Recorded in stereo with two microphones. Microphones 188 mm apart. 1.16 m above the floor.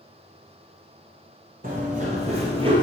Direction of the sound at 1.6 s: 45° right (ahead or behind).